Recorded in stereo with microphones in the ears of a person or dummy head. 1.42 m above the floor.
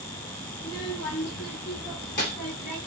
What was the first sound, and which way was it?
A child speaking, 70° left (ahead or behind).